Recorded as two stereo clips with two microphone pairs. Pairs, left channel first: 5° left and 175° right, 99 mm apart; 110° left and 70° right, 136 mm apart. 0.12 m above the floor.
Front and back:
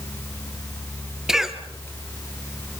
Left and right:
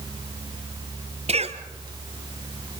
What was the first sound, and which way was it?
A cough, 90° right.